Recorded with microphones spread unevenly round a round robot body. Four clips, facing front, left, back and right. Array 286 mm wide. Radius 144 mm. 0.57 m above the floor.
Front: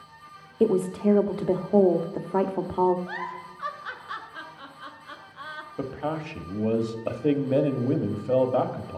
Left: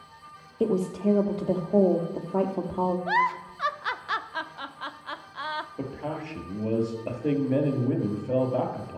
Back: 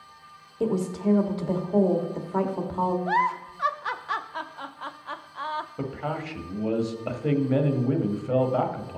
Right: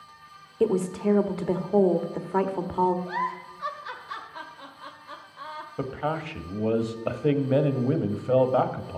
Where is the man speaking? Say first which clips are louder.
Right 4 dB, front 1 dB; 30° right, 1.1 m.